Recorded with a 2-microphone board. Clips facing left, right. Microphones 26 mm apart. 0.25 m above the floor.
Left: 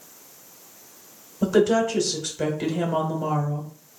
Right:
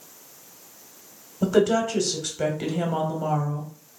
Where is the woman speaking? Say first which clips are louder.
Left 1 dB; 5° right (ahead or behind), 1.0 m.